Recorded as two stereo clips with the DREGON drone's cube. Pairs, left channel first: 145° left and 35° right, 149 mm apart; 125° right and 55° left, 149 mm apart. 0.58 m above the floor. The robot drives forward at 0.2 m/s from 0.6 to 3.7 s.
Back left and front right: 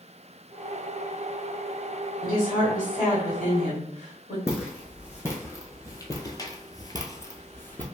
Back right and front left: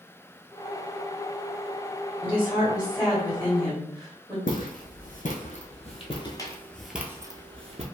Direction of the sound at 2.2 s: 135° left.